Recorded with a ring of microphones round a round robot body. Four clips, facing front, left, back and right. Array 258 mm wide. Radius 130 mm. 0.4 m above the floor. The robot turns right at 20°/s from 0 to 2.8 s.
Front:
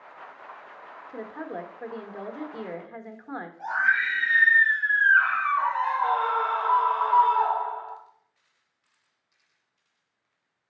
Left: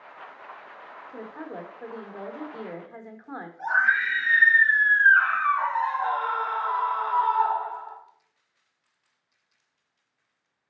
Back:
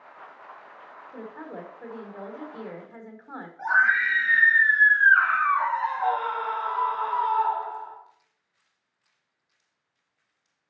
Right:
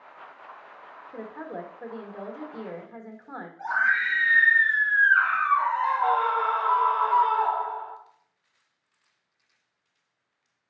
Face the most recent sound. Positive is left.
turn(degrees=-85)